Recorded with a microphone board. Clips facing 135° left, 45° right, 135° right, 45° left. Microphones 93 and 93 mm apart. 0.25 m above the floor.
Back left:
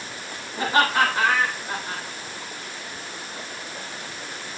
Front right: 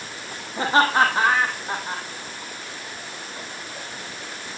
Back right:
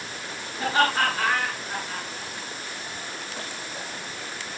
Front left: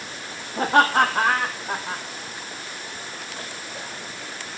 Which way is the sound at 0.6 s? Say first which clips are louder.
Front right 2 dB, front left 5 dB; 15° left.